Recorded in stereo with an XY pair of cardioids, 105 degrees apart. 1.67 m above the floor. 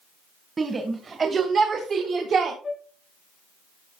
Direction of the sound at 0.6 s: 30° right.